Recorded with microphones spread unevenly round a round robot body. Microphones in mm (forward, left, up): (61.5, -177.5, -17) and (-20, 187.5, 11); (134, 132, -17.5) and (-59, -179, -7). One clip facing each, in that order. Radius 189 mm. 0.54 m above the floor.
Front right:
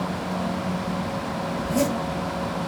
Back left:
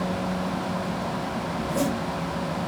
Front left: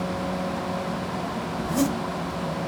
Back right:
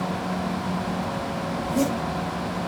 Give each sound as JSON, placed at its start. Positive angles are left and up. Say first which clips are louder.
{"t": 1.6, "sound": "a zipper", "louder": "front right 3 dB, even", "azimuth_deg": -5, "distance_m": 4.0}